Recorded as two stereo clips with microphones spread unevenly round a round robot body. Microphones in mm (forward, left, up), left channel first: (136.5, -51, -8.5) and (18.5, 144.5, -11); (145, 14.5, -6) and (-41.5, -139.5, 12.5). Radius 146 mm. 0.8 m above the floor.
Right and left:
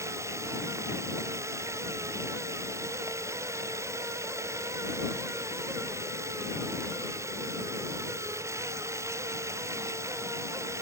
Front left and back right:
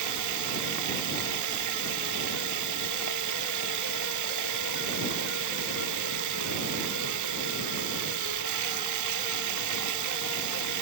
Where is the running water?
160° right.